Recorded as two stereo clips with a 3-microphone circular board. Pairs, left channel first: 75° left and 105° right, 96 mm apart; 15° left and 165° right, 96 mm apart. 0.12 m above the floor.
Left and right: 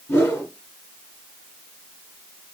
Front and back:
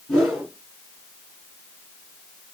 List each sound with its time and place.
0.1 s a whoosh: 105° left, 1.8 m